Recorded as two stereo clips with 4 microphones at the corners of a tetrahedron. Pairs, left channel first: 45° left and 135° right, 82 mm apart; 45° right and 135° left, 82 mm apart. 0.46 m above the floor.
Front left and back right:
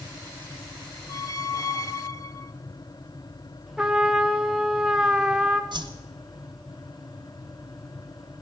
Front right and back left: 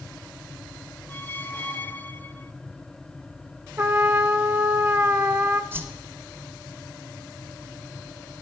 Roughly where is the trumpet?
Behind left.